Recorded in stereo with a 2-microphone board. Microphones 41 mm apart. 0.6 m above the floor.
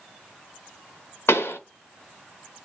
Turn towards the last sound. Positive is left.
turn(degrees=75)  # may be behind; listen again after turning